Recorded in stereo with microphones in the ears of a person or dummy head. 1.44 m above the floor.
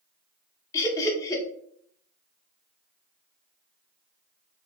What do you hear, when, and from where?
0.7 s laughter: 15° left (ahead or behind), 0.7 m